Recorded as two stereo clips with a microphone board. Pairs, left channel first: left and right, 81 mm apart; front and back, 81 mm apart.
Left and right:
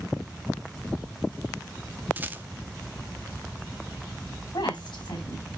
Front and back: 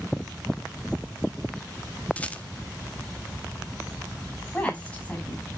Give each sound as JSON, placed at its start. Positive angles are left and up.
{"t": 2.2, "sound": "a rattle", "azimuth_deg": -55, "distance_m": 0.7}
{"t": 4.5, "sound": "a woman speaking", "azimuth_deg": 75, "distance_m": 5.5}